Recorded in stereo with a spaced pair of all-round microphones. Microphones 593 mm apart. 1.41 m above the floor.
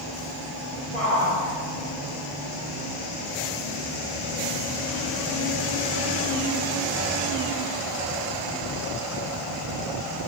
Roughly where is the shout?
Centre.